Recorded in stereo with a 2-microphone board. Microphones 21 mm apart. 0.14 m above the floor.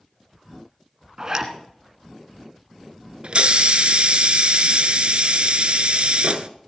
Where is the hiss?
60° right (ahead or behind), 0.6 m.